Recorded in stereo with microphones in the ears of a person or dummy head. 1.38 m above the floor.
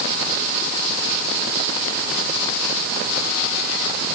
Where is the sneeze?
I don't hear a sneeze.